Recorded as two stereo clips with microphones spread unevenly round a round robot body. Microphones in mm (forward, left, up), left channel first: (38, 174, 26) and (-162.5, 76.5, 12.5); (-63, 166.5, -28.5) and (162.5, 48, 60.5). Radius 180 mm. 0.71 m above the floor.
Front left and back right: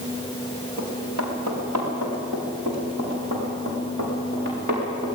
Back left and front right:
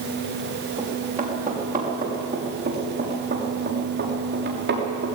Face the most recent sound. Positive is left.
turn(degrees=-90)